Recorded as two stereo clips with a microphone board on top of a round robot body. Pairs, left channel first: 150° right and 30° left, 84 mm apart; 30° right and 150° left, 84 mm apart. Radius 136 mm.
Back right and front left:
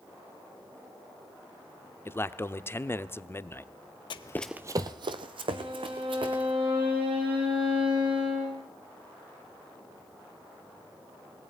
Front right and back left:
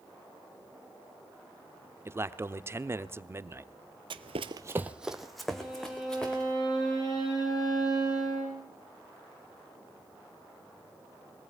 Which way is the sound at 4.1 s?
Straight behind.